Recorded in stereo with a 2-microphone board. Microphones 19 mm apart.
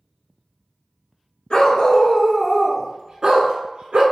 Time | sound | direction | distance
1.5 | a dog barking | 50° left (ahead or behind) | 0.7 m